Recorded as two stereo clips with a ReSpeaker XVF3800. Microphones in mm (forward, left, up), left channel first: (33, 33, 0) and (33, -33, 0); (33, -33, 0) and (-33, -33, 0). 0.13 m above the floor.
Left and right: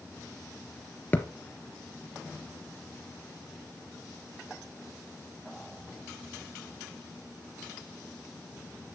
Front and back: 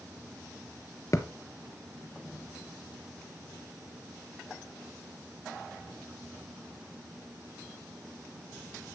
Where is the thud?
30° left, 1.2 m.